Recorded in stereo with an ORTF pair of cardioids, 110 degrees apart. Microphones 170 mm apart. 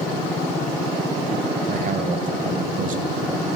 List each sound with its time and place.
1.7 s a man speaking: 55° right, 1.3 m